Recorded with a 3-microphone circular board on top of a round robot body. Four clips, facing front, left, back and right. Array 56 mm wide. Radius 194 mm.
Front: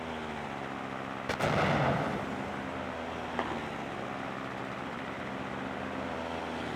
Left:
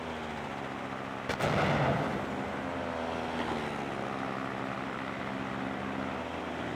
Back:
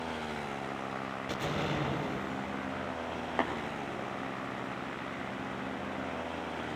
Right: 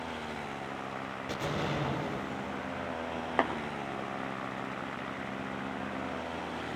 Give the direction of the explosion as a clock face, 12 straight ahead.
11 o'clock.